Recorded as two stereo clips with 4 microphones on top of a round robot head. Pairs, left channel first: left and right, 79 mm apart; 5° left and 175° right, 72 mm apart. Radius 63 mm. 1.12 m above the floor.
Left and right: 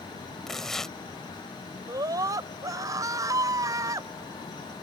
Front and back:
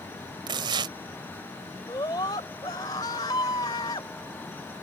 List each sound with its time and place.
0.5 s tearing paper: 175° left
1.9 s a scream: 45° right